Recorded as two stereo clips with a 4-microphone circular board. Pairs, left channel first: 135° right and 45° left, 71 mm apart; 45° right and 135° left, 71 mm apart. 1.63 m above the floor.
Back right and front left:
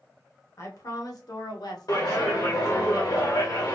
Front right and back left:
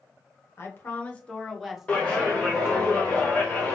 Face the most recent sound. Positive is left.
turn(degrees=-120)